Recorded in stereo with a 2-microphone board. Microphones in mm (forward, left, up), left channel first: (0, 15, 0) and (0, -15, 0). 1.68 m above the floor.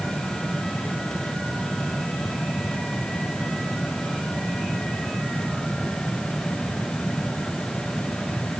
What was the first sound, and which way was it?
Only background noise.